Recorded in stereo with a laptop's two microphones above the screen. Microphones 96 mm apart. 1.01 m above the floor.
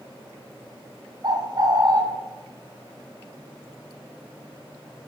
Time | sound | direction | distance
1.2 | a bird | 45° right (ahead or behind) | 1.0 m